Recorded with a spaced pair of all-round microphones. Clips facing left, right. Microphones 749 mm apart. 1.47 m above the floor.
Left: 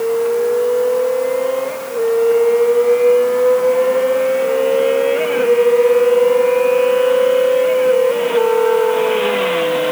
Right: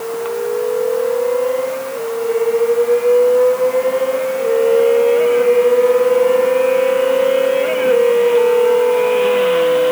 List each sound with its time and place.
Only background noise.